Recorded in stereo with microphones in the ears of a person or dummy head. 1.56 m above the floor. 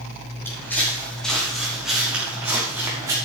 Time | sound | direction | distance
0.5 | footsteps | 15° left (ahead or behind) | 5 m